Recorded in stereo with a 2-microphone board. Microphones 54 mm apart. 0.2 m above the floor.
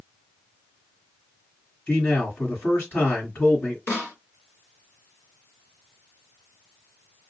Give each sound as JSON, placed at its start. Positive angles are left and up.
{"t": 1.9, "sound": "a man speaking", "side_deg": 40, "distance_m": 1.3}
{"t": 3.9, "sound": "a snare drum", "side_deg": 45, "distance_m": 2.5}